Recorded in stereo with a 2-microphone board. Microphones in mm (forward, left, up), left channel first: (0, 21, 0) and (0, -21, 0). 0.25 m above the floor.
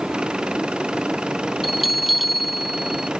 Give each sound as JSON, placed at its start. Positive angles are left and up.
{"t": 0.0, "sound": "an engine running", "side_deg": -25}
{"t": 1.6, "sound": "a bell", "side_deg": 0}